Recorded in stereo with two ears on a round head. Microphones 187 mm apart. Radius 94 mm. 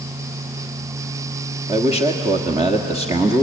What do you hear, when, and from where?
1.7 s a man speaking: 20° right (ahead or behind), 1.6 m